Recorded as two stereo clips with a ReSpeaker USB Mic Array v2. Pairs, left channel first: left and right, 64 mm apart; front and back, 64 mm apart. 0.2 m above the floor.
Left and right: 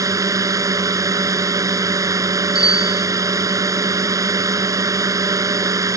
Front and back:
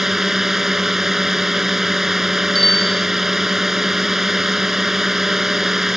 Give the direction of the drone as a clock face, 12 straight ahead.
3 o'clock.